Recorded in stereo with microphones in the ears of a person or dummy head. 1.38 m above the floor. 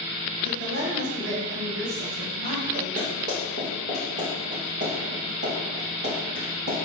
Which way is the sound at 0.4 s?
60° right (ahead or behind).